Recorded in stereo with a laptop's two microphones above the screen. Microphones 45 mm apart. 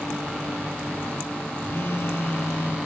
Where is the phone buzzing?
70° left (ahead or behind), 2.0 m.